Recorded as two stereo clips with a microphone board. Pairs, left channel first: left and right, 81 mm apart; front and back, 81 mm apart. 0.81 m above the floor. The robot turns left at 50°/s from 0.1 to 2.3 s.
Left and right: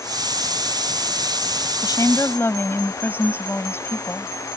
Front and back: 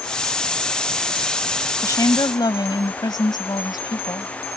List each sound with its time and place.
1.8 s a woman speaking: 55° left; by 4.3 s 30° left